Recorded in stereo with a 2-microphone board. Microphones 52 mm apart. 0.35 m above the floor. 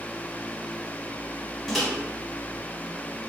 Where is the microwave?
5° left (ahead or behind), 0.8 m.